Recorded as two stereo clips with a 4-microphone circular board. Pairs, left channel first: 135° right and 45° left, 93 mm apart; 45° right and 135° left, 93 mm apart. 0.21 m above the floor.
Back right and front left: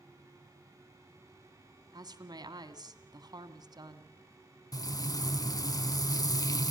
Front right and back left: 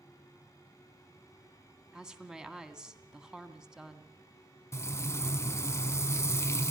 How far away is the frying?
About 0.9 m.